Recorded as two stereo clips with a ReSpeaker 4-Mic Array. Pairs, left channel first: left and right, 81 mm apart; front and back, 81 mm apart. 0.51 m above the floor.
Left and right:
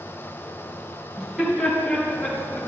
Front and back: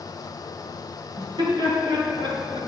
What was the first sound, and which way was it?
Laughter, 175° right.